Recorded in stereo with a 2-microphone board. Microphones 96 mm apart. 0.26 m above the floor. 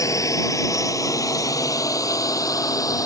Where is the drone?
35° left (ahead or behind).